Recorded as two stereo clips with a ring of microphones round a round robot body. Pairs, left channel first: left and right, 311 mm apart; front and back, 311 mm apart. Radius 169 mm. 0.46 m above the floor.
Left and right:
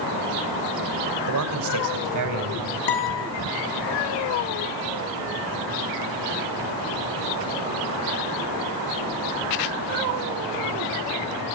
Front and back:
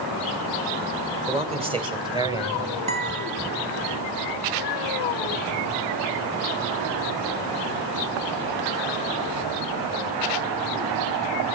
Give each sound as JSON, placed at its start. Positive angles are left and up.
{"t": 1.3, "sound": "a man speaking", "azimuth_deg": -115, "distance_m": 2.5}
{"t": 2.9, "sound": "a guitar", "azimuth_deg": 110, "distance_m": 3.0}